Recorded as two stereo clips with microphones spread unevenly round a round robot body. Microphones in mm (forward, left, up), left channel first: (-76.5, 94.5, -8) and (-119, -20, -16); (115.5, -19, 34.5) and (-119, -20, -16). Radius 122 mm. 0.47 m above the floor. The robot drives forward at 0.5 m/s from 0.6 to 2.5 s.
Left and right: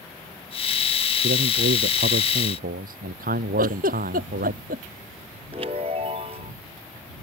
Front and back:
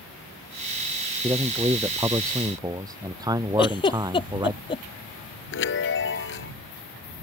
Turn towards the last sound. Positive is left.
turn(degrees=-45)